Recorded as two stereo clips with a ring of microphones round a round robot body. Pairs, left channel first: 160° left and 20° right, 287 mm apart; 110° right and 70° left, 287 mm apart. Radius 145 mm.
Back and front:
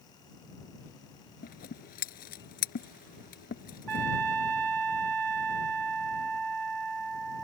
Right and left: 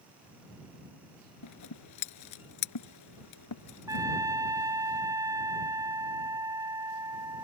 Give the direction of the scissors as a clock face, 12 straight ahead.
5 o'clock.